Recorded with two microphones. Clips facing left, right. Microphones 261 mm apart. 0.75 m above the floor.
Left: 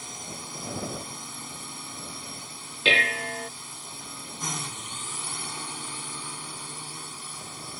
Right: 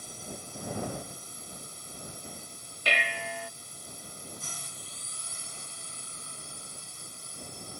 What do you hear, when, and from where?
0.0 s a drone: 80° left
2.9 s dishes clattering: 80° left